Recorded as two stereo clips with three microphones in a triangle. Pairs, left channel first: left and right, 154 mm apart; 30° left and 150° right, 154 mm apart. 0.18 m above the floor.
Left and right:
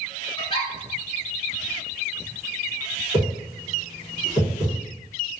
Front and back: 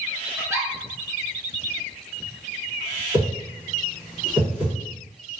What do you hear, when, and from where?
0.4 s a giggle: 145° left, 1.2 m
3.1 s a whoosh: 125° right, 1.8 m